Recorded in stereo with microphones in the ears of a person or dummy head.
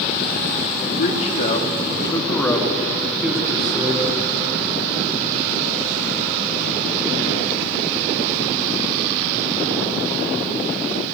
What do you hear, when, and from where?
0.8 s a man speaking: 45° left (ahead or behind), 3.5 m; by 4.2 s 35° right (ahead or behind), 4 m